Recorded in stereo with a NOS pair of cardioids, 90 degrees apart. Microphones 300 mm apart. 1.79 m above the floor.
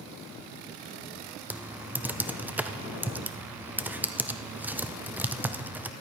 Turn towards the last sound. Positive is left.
turn(degrees=-5)